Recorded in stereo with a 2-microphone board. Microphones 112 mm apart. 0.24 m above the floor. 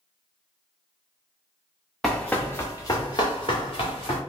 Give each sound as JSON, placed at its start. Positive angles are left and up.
{"t": 2.0, "sound": "running footsteps", "side_deg": 5, "distance_m": 1.0}